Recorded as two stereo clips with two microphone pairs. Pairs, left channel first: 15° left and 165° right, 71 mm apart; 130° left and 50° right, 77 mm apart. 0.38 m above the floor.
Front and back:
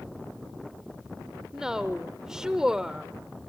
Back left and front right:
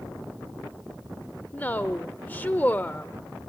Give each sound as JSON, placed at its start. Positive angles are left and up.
{"t": 1.5, "sound": "a woman speaking", "azimuth_deg": 125, "distance_m": 0.8}